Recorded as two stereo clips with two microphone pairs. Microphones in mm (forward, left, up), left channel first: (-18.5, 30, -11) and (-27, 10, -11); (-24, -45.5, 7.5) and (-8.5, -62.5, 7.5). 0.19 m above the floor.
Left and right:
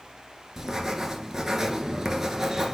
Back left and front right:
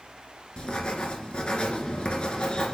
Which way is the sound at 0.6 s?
170° left.